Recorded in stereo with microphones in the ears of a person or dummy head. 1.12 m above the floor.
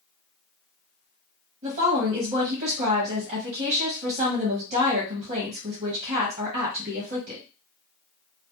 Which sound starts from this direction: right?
A woman speaking, at 1.6 s.